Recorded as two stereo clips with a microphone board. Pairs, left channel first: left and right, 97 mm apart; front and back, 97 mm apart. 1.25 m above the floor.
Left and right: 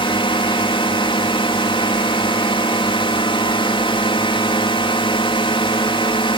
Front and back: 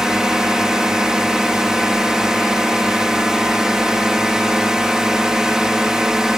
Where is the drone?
95° left.